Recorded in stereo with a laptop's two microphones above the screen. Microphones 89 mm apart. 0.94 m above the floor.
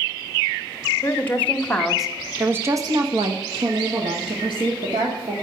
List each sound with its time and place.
1.0 s a woman speaking: 25° left (ahead or behind), 1.6 m; by 5.3 s 70° right (ahead or behind), 2.5 m